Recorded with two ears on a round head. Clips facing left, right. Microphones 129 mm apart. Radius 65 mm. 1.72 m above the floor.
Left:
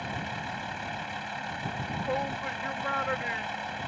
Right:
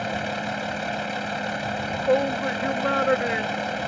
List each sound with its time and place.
0.0 s a vehicle: 75° right (ahead or behind)
1.8 s a shout: 75° right (ahead or behind)